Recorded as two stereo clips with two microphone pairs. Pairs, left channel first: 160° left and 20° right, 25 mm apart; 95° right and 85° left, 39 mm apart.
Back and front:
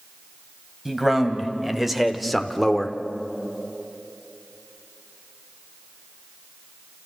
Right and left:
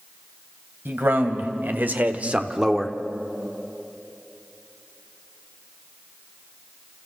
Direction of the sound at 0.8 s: 60° left.